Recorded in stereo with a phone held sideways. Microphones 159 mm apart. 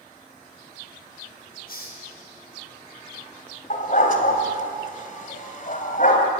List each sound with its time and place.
1.7 s a hiss: 70° left (ahead or behind), 6 m
3.7 s a dog barking: 55° left (ahead or behind), 3 m